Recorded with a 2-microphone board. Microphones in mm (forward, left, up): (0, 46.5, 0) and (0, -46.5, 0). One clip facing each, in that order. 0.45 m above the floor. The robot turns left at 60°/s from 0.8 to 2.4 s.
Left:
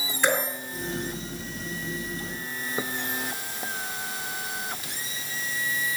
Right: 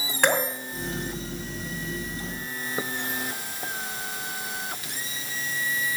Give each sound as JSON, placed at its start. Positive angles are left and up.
{"t": 0.2, "sound": "dripping", "side_deg": -65, "distance_m": 2.5}